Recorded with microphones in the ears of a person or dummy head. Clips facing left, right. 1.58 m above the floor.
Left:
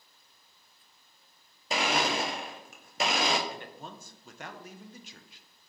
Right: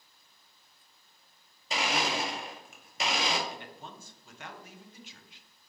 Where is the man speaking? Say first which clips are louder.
Left 2 dB; 45° left (ahead or behind), 0.7 m.